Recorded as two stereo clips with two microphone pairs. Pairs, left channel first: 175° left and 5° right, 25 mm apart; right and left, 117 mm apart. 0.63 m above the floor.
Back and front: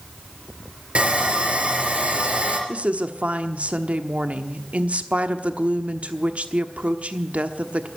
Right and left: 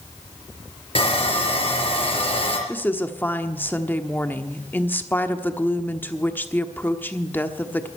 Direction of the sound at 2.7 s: 15° right.